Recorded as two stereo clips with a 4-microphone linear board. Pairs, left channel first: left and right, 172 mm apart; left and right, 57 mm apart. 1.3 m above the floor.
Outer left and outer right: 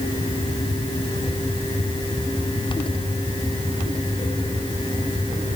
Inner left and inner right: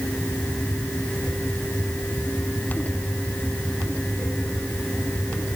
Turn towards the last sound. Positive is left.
No sound to turn to.